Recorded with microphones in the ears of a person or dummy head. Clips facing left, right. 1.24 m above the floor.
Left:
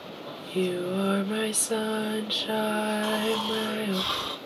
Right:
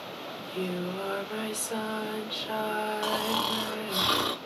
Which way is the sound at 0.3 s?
40° left (ahead or behind).